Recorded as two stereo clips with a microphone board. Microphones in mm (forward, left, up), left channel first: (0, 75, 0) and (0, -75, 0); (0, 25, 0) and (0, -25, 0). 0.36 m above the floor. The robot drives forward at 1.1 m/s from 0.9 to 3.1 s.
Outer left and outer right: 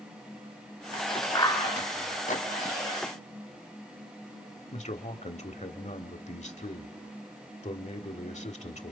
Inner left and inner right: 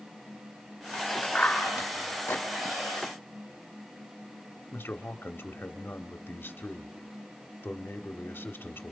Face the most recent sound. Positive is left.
turn(degrees=50)  # may be behind; listen again after turning